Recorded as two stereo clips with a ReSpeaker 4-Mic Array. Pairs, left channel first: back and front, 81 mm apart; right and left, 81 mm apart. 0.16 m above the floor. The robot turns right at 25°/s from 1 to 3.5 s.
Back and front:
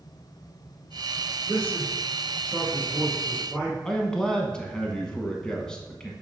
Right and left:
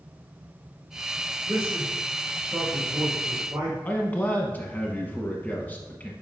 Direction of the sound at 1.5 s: 50° left.